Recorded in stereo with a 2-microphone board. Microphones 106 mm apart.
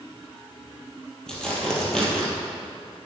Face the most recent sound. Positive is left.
turn(degrees=5)  # may be behind; listen again after turning